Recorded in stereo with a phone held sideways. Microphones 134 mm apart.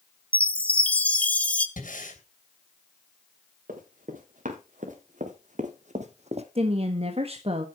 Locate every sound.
0.3 s a chime: 10° left (ahead or behind), 0.9 m
1.8 s breathing: 85° left, 3 m
3.7 s running footsteps: 80° right, 4.5 m; by 6.5 s 50° right (ahead or behind), 1.5 m
6.5 s a woman speaking: 45° right (ahead or behind), 1.4 m